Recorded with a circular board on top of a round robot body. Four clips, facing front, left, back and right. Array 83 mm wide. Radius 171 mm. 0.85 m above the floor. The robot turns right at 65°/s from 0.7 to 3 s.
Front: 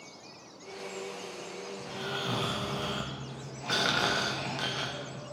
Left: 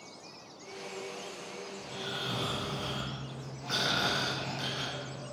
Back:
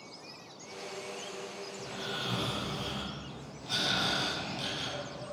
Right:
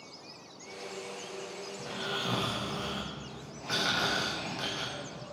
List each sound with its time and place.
1.8 s snoring: 95° right, 1.3 m; by 5.2 s 15° right, 1.3 m